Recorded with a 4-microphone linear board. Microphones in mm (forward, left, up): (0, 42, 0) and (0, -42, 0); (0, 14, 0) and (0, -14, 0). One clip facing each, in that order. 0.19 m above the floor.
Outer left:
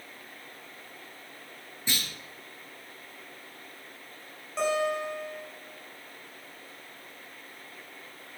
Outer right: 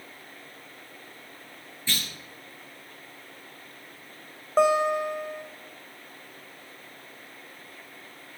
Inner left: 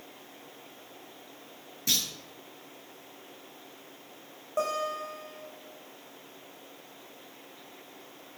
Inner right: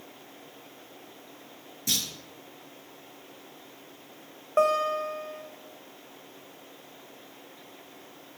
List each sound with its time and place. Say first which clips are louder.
1.9 s a clunk: outer right 1 dB, inner left 1 dB; 20° left (ahead or behind), 2.5 m
4.6 s a guitar: outer right 6 dB, inner right 7 dB; 45° right (ahead or behind), 3 m